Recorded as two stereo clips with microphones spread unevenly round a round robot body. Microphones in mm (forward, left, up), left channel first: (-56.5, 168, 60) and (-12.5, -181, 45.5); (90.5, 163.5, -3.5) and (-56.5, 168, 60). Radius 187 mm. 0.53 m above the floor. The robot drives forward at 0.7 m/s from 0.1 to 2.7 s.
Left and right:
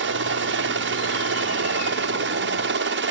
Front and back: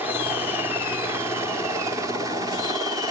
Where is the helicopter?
75° right; by 3.1 s 90° right.